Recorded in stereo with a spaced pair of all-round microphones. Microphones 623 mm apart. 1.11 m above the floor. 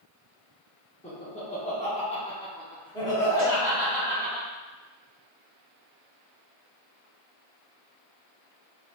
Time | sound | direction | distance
1.0 | laughter | 10° left (ahead or behind) | 0.8 m
3.4 | a cowbell | 5° right (ahead or behind) | 1.7 m